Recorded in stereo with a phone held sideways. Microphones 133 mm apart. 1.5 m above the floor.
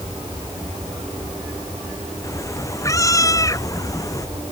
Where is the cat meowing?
25° left (ahead or behind).